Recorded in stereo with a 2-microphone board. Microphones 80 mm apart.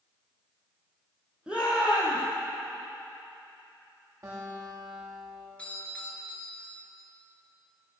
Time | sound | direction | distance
1.5 | a shout | 15° right (ahead or behind) | 4.5 m
4.2 | a guitar | 35° right (ahead or behind) | 6.5 m
5.6 | a doorbell | 15° left (ahead or behind) | 3 m